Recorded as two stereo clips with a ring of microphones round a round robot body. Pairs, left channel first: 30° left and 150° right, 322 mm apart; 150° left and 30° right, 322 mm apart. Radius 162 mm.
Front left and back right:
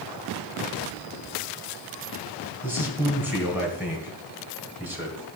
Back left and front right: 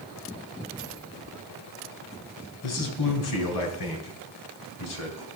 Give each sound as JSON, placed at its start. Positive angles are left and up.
{"t": 2.6, "sound": "a man speaking", "azimuth_deg": 125, "distance_m": 2.0}